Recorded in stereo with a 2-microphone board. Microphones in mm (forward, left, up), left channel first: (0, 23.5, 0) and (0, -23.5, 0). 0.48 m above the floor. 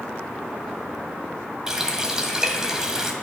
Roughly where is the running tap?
Centre.